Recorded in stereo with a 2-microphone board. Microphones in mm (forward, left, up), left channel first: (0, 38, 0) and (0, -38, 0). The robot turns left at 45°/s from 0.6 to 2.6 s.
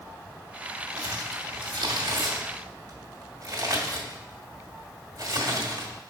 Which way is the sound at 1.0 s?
50° right (ahead or behind).